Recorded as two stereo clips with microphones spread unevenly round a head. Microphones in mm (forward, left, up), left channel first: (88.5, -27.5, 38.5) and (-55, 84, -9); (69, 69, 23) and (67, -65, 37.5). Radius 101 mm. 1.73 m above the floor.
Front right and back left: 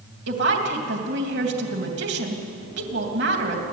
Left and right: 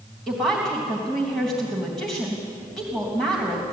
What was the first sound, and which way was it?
A woman speaking, 175° left.